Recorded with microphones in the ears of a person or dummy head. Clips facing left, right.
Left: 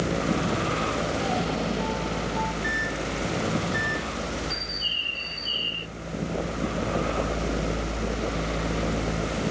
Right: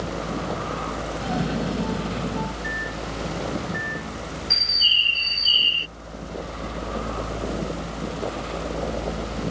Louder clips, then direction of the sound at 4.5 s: Left 2 dB; 50° right (ahead or behind).